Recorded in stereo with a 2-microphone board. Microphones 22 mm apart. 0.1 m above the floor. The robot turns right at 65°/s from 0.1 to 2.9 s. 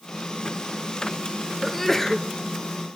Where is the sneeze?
Straight ahead, 1.9 m; by 2.3 s 40° left, 1.9 m.